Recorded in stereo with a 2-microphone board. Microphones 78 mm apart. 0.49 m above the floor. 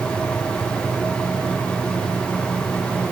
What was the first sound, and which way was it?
Only background noise.